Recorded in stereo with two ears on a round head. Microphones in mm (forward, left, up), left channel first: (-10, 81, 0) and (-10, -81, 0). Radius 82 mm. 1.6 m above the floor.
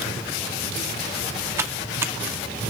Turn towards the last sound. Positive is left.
turn(degrees=-15)  # may be behind; listen again after turning